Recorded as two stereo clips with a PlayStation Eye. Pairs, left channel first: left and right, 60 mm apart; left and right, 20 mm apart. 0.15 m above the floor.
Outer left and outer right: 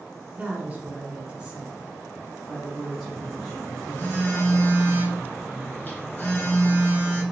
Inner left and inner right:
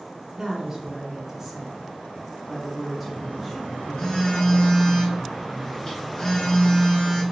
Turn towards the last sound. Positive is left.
turn(degrees=30)  # may be behind; listen again after turning